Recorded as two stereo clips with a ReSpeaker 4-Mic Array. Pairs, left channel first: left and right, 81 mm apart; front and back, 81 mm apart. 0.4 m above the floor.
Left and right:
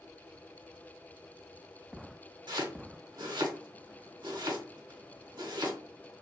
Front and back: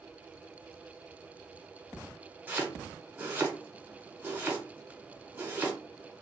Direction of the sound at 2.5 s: 115° right.